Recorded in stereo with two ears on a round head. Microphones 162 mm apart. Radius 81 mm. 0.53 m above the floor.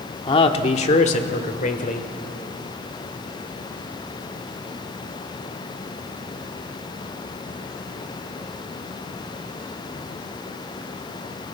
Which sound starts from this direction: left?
A man speaking, at 0.3 s.